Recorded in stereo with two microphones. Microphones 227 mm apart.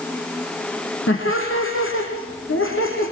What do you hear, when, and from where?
1.1 s laughter: 75° left (ahead or behind), 5.5 m